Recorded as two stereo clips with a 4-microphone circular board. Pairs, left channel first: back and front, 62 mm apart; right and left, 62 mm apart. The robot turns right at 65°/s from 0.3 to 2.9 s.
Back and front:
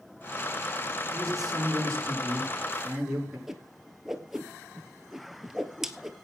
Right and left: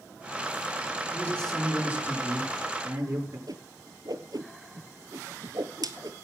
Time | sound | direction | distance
1.1 | a man speaking | 35° right | 6 m
3.5 | a whoosh | 85° left | 1.3 m